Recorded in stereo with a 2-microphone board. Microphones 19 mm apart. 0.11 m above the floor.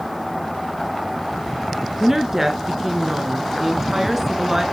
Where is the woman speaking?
20° right (ahead or behind), 1.2 m.